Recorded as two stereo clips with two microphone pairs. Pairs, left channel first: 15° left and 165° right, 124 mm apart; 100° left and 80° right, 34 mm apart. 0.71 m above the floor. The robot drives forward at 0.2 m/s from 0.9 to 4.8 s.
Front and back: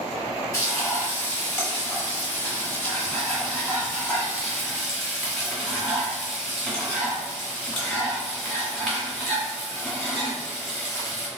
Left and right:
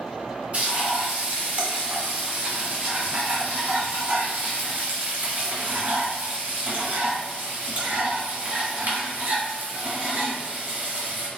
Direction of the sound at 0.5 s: 45° right.